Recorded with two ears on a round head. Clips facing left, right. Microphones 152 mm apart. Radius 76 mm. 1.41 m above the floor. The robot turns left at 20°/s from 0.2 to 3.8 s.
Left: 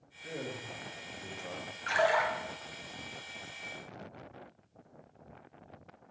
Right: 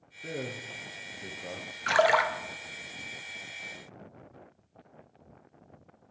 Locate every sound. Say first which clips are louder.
0.2 s a man speaking: right 3 dB; 50° right (ahead or behind), 0.8 m; by 1.8 s 30° right (ahead or behind), 0.8 m
1.9 s a splash: right 4 dB; 65° right (ahead or behind), 0.6 m; by 2.3 s 75° right (ahead or behind), 0.6 m